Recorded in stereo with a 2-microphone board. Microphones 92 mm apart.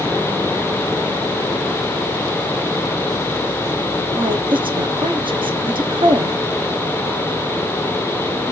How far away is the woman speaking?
About 0.8 m.